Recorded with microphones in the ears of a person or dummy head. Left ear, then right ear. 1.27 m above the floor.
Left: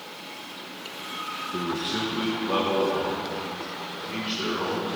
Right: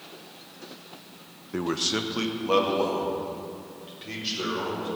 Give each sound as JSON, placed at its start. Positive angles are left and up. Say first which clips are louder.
{"t": 1.5, "sound": "a man speaking", "louder": "right 4 dB", "side_deg": -55, "distance_m": 0.8}